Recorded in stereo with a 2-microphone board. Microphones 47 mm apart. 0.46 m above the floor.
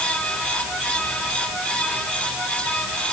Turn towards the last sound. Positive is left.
No sound to turn to.